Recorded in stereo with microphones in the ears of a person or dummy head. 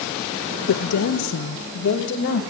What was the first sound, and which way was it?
A woman speaking, 70° left (ahead or behind).